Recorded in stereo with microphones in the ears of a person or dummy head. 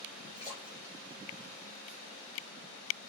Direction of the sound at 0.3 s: 25° right (ahead or behind).